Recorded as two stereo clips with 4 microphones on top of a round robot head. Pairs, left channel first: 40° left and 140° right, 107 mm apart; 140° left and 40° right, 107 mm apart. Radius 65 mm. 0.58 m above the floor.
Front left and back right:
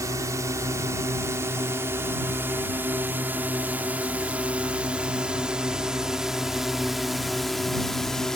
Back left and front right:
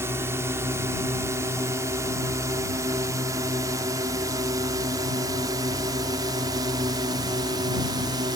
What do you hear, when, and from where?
0.0 s a drone: 95° right; by 8.4 s 45° right